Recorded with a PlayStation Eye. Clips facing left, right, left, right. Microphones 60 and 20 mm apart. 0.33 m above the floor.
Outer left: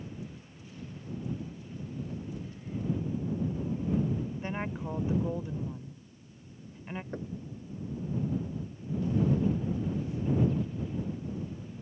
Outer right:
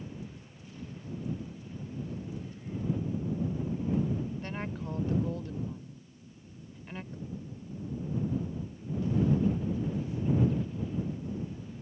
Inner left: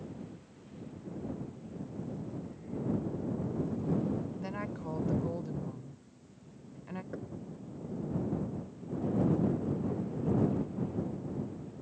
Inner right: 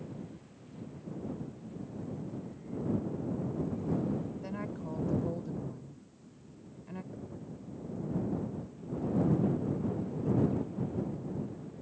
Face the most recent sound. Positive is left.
turn(degrees=55)  # may be behind; listen again after turning